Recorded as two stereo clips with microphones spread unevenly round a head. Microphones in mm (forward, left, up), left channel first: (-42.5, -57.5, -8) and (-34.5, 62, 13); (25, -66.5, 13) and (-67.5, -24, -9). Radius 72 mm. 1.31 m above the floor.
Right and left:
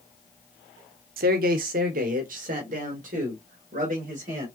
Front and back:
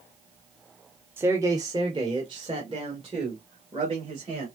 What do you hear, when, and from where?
1.2 s a man speaking: 80° left, 0.6 m; by 4.5 s 100° left, 2.5 m